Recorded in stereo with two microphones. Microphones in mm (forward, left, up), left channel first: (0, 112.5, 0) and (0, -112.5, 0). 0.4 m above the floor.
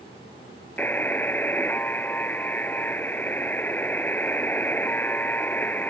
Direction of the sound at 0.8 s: 10° left (ahead or behind).